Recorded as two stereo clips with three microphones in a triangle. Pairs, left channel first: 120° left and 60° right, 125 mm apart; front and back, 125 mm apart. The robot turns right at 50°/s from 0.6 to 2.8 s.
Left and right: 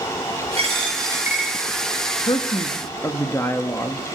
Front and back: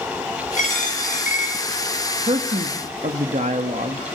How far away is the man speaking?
About 1.4 m.